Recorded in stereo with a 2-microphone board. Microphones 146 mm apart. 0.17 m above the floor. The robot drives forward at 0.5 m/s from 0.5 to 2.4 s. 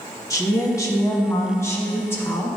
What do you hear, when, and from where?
0.3 s a woman speaking: 25° left (ahead or behind), 1.1 m; by 2.6 s 15° left (ahead or behind), 1.5 m